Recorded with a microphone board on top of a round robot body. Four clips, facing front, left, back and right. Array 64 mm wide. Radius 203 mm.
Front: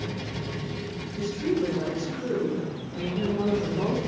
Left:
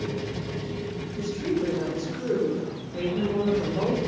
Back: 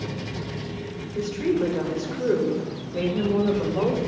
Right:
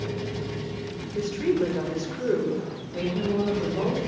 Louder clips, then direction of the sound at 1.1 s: Right 4 dB, back 3 dB; 130° right.